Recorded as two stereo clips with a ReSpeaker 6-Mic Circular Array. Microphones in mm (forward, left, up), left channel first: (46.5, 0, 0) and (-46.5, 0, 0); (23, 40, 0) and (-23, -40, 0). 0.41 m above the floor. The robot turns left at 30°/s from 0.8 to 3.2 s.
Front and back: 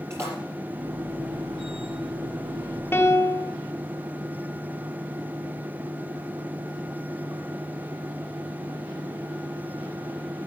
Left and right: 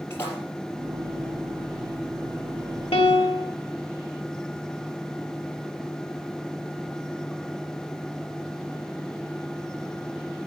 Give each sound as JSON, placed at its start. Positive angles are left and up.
{"t": 0.1, "sound": "a splash", "azimuth_deg": 120, "distance_m": 4.0}
{"t": 2.9, "sound": "a piano", "azimuth_deg": 65, "distance_m": 0.8}